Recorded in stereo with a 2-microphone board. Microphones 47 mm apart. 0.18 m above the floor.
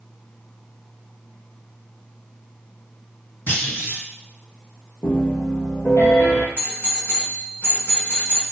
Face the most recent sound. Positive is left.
turn(degrees=35)  # may be behind; listen again after turning